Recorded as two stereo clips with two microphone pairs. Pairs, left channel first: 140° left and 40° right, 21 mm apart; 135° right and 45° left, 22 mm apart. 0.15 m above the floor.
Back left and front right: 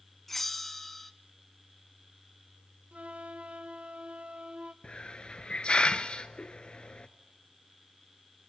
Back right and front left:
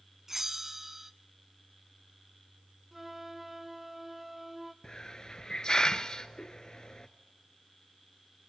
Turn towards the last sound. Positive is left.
turn(degrees=175)